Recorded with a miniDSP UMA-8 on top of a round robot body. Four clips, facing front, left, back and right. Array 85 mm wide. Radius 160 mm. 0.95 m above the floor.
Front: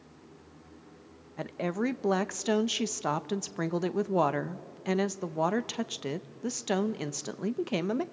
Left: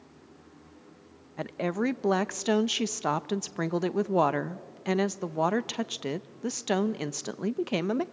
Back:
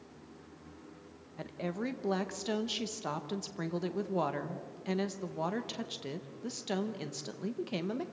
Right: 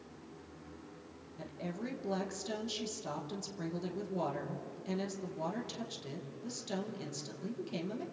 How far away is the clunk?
No clunk in this recording.